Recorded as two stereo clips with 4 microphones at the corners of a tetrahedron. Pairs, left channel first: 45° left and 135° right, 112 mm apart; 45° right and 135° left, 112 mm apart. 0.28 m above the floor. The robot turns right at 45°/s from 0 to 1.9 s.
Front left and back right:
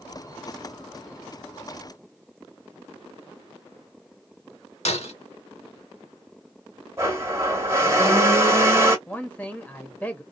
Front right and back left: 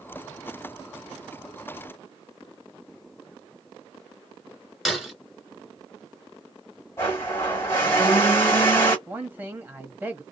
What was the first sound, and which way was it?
Breaking glass, 45° left.